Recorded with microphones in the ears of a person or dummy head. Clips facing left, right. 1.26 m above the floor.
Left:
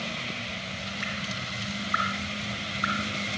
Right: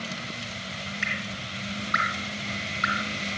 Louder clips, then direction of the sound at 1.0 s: Even; 30° right (ahead or behind).